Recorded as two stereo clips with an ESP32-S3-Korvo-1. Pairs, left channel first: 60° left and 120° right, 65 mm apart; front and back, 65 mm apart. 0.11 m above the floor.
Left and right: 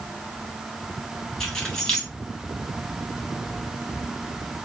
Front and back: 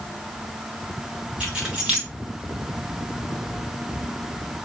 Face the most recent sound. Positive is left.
turn(degrees=130)